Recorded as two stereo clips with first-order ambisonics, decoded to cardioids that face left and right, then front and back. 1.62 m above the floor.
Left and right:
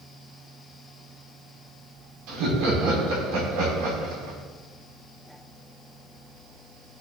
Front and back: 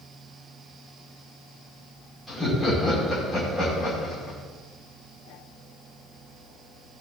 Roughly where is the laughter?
Right.